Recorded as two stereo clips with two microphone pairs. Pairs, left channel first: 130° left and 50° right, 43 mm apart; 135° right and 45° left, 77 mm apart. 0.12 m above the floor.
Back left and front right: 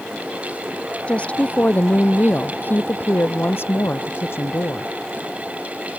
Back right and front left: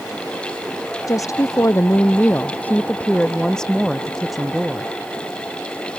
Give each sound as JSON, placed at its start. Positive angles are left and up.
{"t": 1.1, "sound": "a woman speaking", "azimuth_deg": -175}